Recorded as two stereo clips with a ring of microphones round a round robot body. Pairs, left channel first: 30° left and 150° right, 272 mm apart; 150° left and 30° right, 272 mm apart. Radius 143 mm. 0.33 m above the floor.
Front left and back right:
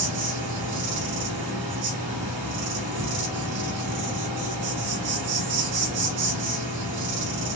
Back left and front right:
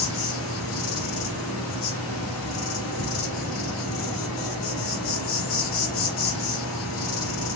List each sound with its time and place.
0.0 s an insect: 170° right, 1.3 m